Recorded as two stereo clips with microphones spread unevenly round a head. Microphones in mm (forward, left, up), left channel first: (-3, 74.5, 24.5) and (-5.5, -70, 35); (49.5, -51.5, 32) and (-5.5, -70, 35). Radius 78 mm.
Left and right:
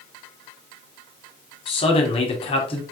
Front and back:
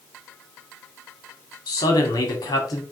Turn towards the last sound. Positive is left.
turn(degrees=35)